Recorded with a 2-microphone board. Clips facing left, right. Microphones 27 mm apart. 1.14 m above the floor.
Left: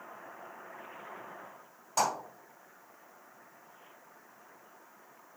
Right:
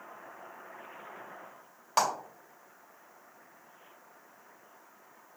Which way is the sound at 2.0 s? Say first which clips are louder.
Right 2 dB; 65° right (ahead or behind).